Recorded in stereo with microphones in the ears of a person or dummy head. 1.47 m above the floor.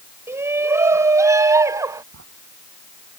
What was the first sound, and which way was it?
A shout, 15° right (ahead or behind).